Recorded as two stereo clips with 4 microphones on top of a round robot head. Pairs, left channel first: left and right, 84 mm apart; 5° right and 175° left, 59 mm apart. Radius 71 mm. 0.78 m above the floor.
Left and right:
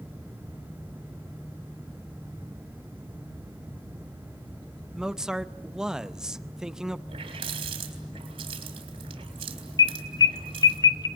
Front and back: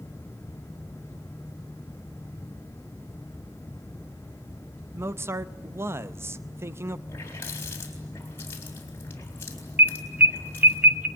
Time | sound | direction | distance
4.9 | a man speaking | 170° right | 0.8 m
7.1 | a running tap | 65° right | 4 m
9.8 | an alarm | 125° left | 1.7 m